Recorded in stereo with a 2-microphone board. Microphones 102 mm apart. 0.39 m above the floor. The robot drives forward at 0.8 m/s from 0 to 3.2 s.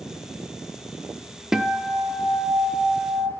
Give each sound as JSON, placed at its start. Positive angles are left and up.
{"t": 1.5, "sound": "a guitar", "side_deg": -5, "distance_m": 1.3}